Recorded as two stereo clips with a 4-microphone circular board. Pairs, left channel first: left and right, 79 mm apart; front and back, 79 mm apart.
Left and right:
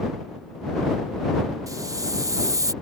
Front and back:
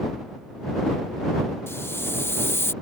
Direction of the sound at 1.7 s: 55° right.